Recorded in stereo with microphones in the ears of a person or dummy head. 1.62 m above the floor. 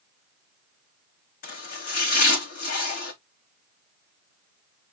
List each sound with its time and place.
1.4 s chopping: 60° left (ahead or behind), 4.5 m